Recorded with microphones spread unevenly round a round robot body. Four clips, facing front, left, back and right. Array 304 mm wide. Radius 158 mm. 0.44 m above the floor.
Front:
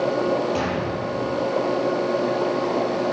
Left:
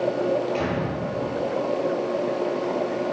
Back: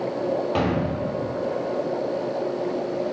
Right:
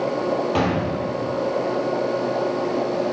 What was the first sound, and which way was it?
A gunshot, 105° right.